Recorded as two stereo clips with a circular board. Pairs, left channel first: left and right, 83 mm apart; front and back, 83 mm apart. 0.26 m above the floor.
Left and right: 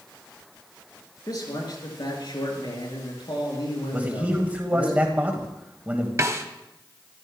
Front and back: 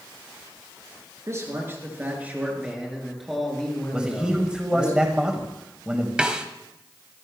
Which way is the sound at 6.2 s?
110° right.